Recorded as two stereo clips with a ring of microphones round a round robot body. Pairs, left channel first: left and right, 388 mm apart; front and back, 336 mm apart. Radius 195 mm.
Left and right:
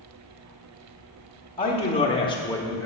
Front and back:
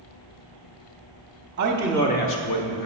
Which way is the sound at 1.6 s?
160° left.